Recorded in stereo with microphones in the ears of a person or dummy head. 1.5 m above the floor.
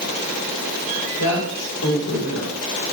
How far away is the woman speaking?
About 6.5 m.